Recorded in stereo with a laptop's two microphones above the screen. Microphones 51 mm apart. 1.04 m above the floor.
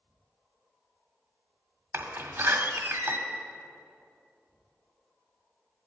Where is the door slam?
55° right (ahead or behind), 1.7 m.